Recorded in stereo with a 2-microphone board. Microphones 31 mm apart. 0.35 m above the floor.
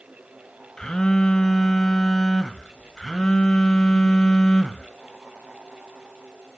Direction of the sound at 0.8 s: 20° left (ahead or behind).